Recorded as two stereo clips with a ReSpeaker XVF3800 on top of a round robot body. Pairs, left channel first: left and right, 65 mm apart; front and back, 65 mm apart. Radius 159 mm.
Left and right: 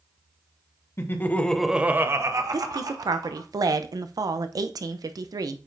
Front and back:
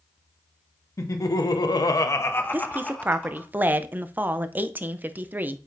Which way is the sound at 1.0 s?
40° left.